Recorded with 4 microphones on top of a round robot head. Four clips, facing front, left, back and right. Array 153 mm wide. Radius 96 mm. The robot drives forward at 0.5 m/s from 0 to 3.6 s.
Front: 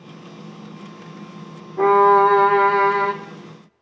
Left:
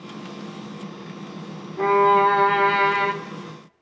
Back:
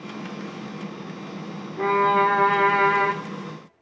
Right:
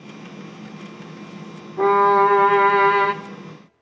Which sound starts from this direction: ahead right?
A violin, at 1.8 s.